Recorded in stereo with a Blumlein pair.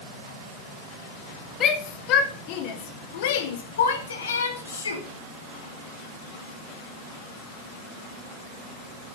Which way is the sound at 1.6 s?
30° left.